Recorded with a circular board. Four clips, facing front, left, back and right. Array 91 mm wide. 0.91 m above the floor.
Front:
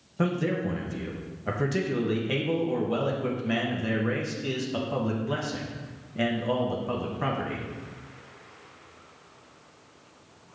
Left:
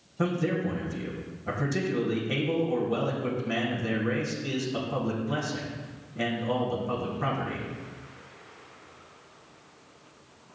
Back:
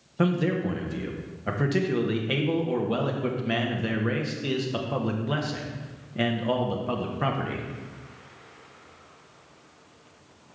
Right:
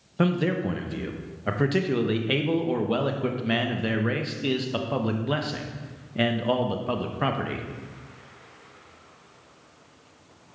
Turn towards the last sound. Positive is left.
turn(degrees=-105)